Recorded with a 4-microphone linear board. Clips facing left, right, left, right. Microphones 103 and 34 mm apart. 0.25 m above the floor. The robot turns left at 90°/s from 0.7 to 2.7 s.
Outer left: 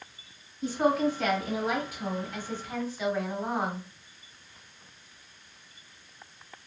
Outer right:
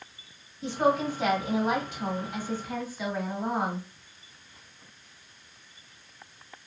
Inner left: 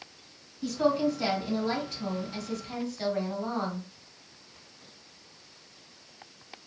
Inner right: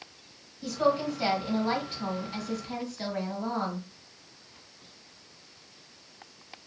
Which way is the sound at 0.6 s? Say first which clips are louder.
Even, inner left 1 dB; centre (ahead or behind).